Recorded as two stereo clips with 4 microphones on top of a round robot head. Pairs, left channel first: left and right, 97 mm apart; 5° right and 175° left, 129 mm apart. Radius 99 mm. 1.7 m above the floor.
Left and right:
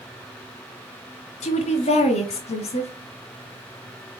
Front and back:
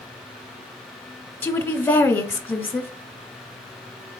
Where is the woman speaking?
70° left, 1.2 m.